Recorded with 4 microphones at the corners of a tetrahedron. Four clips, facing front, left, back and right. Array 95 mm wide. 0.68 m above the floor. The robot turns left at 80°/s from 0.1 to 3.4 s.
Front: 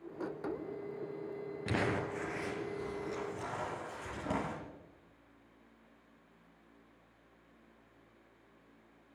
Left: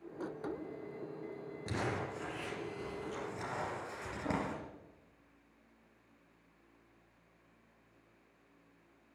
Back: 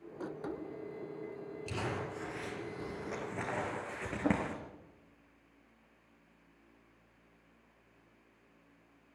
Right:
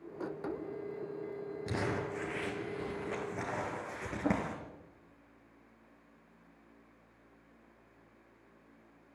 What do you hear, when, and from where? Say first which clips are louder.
1.7 s crumpling: right 2 dB, front 5 dB; 5° right, 5 m; by 4.6 s 145° right, 5 m